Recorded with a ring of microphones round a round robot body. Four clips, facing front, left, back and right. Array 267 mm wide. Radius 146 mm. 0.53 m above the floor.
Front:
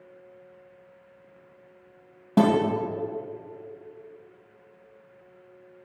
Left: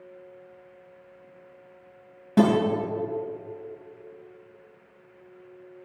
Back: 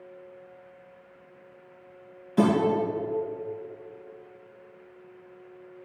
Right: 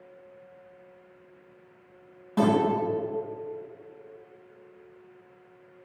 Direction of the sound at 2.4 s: 25° left.